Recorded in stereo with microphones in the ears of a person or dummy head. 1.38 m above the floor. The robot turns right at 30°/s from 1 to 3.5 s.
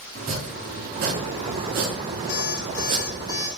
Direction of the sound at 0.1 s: 50° right (ahead or behind).